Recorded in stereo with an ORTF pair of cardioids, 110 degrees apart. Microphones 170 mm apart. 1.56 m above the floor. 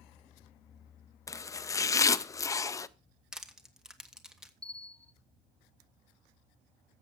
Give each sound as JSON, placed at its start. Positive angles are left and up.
{"t": 1.3, "sound": "chopping", "azimuth_deg": 20, "distance_m": 0.5}
{"t": 3.3, "sound": "crushing", "azimuth_deg": -5, "distance_m": 1.3}
{"t": 4.6, "sound": "a bell", "azimuth_deg": 5, "distance_m": 0.9}